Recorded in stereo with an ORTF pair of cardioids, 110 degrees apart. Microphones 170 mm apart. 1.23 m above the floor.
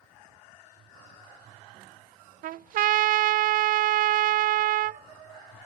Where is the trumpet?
55° right, 0.5 m.